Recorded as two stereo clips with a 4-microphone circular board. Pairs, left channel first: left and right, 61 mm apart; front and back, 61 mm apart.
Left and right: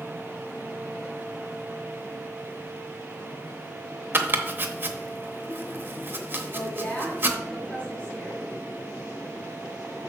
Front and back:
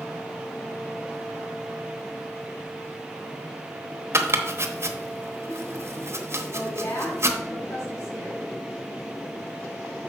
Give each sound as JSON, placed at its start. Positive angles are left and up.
{"t": 4.1, "sound": "chopping", "azimuth_deg": -140, "distance_m": 0.9}
{"t": 6.5, "sound": "a woman speaking", "azimuth_deg": 20, "distance_m": 3.5}